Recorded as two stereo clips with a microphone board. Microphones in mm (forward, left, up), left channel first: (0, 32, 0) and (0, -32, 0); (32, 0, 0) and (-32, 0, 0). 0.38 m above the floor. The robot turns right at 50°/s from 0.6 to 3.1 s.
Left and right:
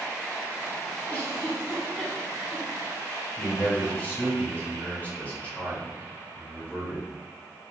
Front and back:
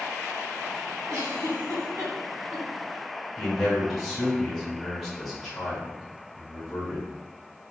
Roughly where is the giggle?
Behind left.